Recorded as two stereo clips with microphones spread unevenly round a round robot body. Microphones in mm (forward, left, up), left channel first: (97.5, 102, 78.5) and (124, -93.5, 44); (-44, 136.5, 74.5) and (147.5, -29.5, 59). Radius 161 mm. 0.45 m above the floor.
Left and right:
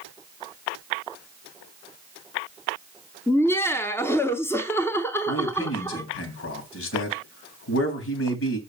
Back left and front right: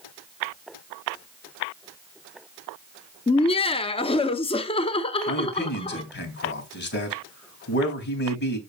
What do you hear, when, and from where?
3.3 s laughter: 175° right, 0.7 m
5.3 s a man speaking: 90° left, 3.5 m